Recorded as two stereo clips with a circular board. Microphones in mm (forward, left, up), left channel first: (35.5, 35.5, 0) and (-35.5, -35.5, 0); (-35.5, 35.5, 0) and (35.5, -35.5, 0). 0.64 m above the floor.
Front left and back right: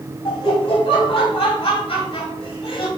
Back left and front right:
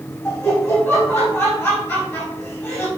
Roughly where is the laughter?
Left.